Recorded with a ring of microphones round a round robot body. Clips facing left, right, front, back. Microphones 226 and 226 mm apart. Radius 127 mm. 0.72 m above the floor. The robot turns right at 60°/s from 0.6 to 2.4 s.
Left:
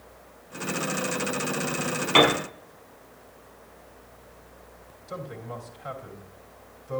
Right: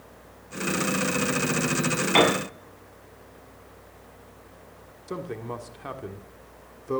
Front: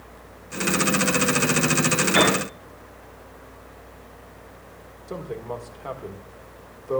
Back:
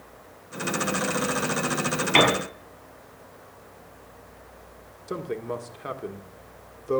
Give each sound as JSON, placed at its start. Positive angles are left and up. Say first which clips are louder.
{"t": 2.1, "sound": "a piano", "louder": "even, even", "azimuth_deg": 150, "distance_m": 6.0}
{"t": 5.1, "sound": "a man speaking", "louder": "right 4 dB, back 2 dB", "azimuth_deg": -115, "distance_m": 1.6}